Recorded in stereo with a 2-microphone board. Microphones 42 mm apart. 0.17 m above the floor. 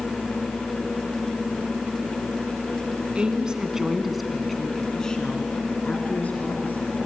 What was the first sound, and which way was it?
A woman speaking, 30° right (ahead or behind).